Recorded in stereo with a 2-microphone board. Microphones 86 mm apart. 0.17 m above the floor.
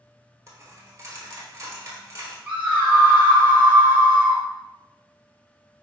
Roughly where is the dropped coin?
Right.